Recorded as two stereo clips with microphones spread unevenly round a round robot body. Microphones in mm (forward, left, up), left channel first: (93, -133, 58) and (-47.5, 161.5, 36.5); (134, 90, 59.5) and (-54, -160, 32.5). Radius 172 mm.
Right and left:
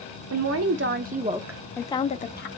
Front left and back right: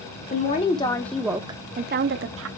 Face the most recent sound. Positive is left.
turn(degrees=-120)